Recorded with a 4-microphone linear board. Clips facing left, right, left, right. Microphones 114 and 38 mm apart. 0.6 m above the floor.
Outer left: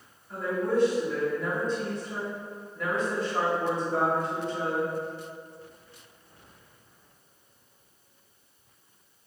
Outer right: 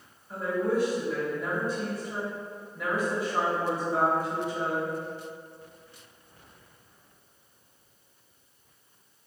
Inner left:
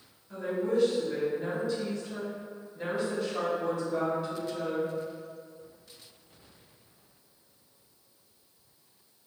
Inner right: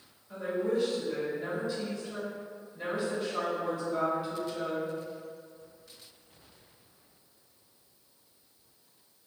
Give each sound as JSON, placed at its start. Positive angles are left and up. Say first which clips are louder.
{"t": 0.3, "sound": "a woman speaking", "louder": "even, inner left 1 dB", "side_deg": -10, "distance_m": 1.2}